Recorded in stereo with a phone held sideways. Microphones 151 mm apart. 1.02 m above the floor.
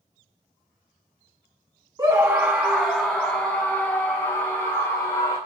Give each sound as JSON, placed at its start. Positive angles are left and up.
{"t": 2.0, "sound": "a scream", "side_deg": -25, "distance_m": 1.2}